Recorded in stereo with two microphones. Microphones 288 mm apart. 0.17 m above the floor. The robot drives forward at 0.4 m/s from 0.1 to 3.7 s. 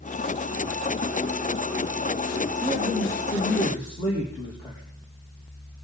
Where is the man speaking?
10° left (ahead or behind), 4.5 m.